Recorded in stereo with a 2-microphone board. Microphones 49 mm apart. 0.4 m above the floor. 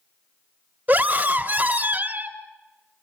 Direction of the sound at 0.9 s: 40° right (ahead or behind).